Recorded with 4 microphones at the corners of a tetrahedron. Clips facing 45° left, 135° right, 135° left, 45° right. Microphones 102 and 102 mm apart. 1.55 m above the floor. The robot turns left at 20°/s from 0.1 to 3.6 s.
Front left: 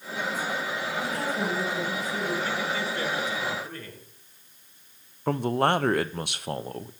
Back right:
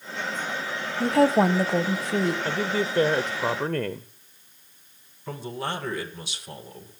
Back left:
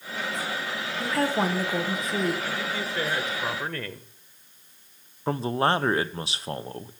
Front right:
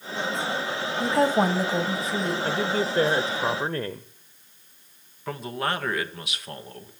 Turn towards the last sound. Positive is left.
turn(degrees=75)